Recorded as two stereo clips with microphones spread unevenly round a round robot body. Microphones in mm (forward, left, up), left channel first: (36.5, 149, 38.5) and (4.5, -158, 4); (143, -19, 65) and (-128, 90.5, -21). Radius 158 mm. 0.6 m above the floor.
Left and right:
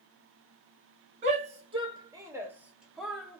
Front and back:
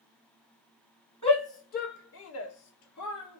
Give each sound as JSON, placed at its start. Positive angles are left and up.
{"t": 1.2, "sound": "a shout", "azimuth_deg": -110, "distance_m": 1.3}